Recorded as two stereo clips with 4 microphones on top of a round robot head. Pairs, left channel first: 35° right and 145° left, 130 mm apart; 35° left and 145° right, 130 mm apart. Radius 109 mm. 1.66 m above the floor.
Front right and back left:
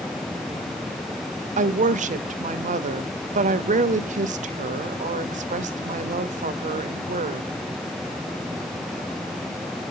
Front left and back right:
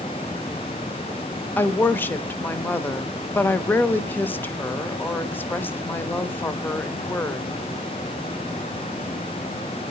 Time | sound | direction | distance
1.6 | a woman speaking | 115° left | 0.7 m